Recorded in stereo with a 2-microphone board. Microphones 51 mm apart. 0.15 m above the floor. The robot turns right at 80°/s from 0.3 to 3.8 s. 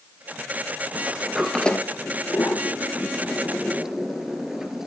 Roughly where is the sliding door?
Right.